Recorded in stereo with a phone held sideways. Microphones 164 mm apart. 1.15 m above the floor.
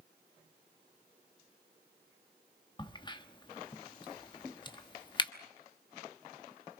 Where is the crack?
30° left (ahead or behind), 1.1 m.